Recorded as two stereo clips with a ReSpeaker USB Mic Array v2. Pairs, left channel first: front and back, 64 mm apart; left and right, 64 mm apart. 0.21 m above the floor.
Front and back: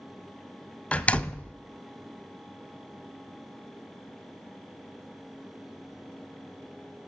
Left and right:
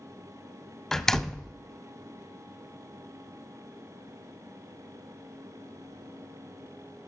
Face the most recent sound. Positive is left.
turn(degrees=20)